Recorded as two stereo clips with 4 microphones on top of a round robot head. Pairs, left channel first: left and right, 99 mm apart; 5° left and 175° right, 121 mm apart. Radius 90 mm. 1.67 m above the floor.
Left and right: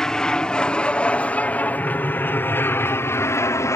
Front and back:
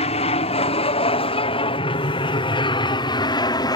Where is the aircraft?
10° left; by 3.8 s 45° left.